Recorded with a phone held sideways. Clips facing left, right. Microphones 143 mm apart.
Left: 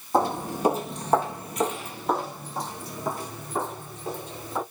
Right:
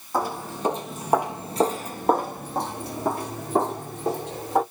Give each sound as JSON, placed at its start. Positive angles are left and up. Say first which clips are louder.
{"t": 0.1, "sound": "footsteps", "louder": "left 3 dB", "side_deg": 25, "distance_m": 1.4}